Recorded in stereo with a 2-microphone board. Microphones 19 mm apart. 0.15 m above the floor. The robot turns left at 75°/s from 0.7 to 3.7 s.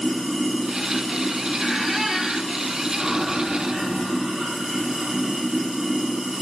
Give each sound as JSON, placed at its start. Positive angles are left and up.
{"t": 0.0, "sound": "running water", "azimuth_deg": 175, "distance_m": 2.0}
{"t": 1.6, "sound": "a squeak", "azimuth_deg": 20, "distance_m": 0.7}